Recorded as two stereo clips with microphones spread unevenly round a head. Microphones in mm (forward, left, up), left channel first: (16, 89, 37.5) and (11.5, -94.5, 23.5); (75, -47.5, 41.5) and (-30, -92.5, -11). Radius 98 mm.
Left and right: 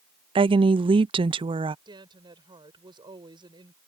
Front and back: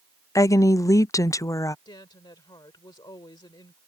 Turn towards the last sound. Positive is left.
turn(degrees=-25)